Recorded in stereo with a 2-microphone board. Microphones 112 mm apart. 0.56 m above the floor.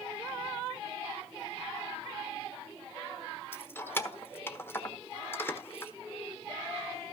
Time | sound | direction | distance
3.5 | keys jangling | 20° left (ahead or behind) | 1.1 m